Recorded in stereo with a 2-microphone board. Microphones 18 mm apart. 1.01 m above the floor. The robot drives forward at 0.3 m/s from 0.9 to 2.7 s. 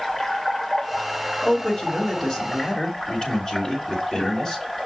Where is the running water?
15° left (ahead or behind), 1.7 m.